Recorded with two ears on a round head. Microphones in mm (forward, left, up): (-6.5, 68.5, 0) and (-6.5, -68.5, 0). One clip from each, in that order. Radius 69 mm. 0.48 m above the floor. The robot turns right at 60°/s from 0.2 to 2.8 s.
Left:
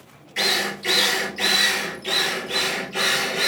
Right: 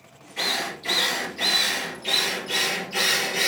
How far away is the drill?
About 4 m.